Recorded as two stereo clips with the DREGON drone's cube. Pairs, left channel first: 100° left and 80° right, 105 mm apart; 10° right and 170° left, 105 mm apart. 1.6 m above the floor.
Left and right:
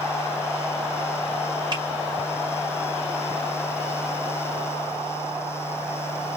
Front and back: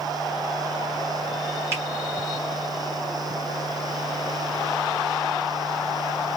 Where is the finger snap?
125° right, 2.5 m.